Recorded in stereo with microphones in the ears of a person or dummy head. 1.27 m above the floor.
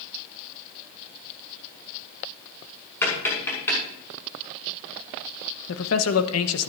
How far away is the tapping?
About 6.5 m.